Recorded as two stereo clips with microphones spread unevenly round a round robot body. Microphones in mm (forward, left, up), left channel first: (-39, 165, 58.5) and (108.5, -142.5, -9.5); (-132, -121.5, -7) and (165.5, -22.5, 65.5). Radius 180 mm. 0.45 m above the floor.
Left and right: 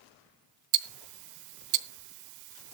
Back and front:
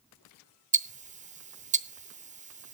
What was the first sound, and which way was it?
Ticking, 55° right.